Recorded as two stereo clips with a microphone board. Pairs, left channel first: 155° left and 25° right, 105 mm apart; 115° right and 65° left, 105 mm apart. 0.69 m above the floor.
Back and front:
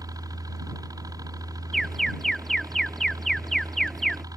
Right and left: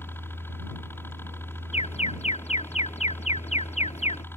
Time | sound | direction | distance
0.0 | a helicopter | 55° right | ?
1.7 | an alarm | 115° right | ?